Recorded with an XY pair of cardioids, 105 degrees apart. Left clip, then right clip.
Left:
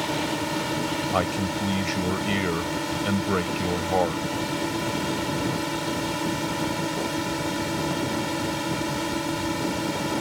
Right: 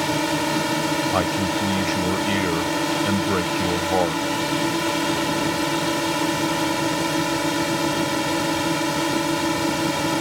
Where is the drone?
40° right.